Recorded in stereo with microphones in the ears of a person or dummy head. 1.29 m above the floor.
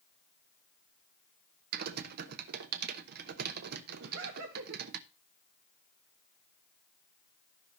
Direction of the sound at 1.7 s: 60° right (ahead or behind).